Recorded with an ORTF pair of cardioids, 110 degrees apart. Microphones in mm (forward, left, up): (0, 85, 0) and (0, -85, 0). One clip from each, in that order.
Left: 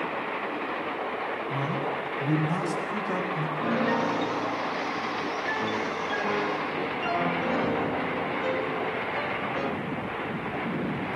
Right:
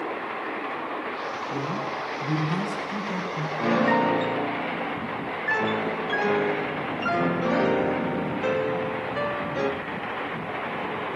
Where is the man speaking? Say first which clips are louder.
Even; 50° left, 8 m; by 3.5 s 40° left, 7 m.